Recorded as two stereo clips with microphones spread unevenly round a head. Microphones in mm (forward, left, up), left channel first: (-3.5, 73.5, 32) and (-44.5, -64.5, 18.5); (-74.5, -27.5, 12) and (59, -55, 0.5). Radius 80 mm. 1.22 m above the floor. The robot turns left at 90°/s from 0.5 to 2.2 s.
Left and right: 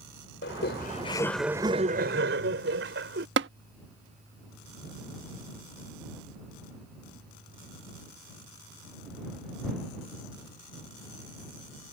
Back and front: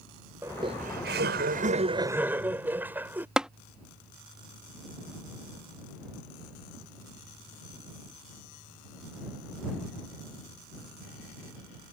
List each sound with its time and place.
0.4 s laughter: 65° left; by 3.3 s 90° right
3.4 s tapping: 100° right